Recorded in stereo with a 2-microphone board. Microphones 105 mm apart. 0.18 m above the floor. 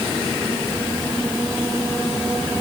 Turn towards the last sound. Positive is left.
No sound to turn to.